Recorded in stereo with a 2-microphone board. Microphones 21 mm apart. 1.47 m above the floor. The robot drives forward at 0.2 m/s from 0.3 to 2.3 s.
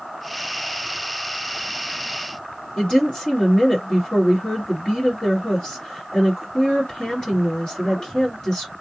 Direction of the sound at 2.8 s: 40° left (ahead or behind).